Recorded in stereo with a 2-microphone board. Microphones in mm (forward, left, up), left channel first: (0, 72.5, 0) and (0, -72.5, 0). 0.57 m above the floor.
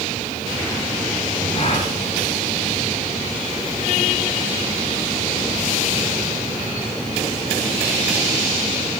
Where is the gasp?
45° left (ahead or behind), 4.5 m.